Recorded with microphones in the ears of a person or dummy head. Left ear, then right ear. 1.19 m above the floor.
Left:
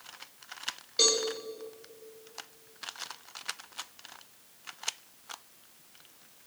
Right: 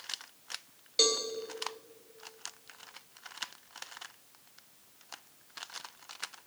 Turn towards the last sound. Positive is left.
turn(degrees=-15)  # may be behind; listen again after turning